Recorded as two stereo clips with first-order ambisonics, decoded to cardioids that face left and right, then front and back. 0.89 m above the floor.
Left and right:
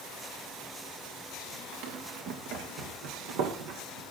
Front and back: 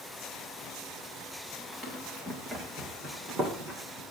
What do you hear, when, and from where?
1.7 s running footsteps: 105° right, 4 m; by 4.0 s 120° right, 3.5 m